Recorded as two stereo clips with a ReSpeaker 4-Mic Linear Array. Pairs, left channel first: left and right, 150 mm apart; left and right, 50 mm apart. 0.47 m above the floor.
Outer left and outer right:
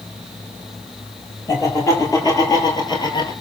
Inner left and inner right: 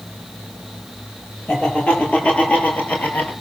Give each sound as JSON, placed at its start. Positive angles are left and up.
{"t": 1.5, "sound": "laughter", "side_deg": 20, "distance_m": 10.0}